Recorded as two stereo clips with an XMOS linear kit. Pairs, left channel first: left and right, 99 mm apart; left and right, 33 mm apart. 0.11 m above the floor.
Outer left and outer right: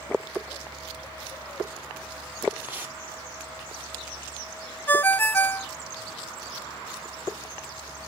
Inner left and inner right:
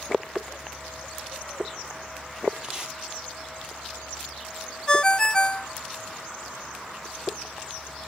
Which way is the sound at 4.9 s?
20° left (ahead or behind).